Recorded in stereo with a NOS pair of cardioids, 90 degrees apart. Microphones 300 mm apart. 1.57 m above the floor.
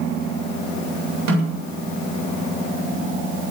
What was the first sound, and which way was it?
A snare drum, 65° right.